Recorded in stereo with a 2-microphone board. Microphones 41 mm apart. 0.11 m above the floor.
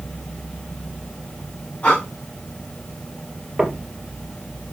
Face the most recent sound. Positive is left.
turn(degrees=-15)  # may be behind; listen again after turning